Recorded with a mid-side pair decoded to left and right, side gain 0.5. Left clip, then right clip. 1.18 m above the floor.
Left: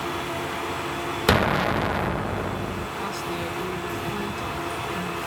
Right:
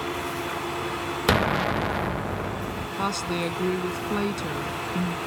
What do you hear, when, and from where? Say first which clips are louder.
1.3 s an explosion: left 2 dB; 5° left
3.0 s a woman speaking: right 5 dB; 50° right